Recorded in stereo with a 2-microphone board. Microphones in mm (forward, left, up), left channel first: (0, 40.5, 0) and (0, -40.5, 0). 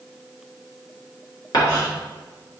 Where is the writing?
55° left (ahead or behind), 2 m.